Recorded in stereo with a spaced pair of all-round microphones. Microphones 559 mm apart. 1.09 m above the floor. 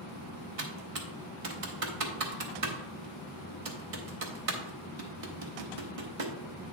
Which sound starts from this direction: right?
Typing on a keyboard, at 0.6 s.